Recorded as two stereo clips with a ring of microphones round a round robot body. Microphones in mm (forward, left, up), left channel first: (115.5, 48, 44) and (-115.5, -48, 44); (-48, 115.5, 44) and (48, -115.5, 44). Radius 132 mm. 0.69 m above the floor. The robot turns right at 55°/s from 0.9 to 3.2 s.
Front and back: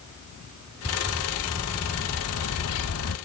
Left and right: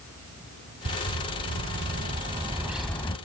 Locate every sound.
0.8 s a bird: 85° right, 0.7 m; by 3.2 s 40° left, 0.7 m